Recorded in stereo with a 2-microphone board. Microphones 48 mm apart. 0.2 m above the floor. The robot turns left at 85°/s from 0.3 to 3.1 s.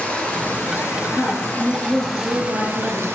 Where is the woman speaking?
65° left, 2.5 m; by 3.1 s 100° right, 2.5 m.